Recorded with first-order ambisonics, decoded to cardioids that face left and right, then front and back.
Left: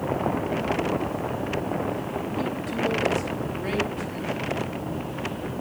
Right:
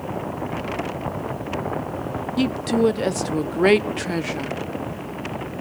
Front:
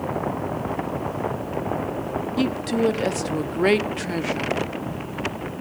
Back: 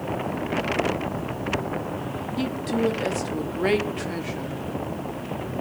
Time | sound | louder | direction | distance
2.4 | a woman speaking | right 9 dB, front 2 dB | 70° right | 0.8 m